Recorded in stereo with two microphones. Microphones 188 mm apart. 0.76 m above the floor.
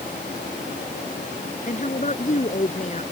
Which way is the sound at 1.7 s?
45° left (ahead or behind).